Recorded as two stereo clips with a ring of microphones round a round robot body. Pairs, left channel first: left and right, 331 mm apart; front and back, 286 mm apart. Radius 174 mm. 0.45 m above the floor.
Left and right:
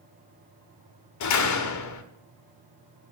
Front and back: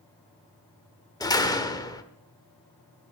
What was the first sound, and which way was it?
A door slam, 75° left.